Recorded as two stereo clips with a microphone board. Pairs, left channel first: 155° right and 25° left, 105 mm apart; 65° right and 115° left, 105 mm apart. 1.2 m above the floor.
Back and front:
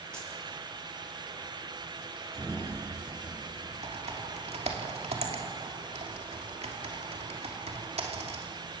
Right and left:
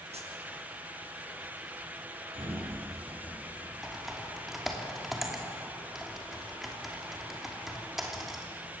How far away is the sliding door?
About 6 m.